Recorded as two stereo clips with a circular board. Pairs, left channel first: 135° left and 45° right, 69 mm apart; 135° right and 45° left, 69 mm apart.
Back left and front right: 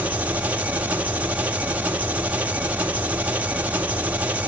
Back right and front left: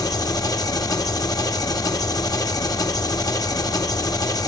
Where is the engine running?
115° right, 1.1 m.